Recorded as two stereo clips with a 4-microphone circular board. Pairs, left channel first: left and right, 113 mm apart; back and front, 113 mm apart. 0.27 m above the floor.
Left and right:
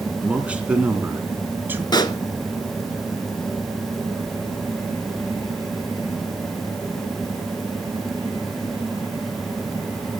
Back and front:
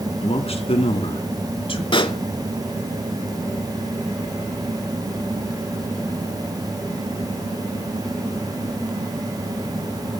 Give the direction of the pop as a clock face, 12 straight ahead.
7 o'clock.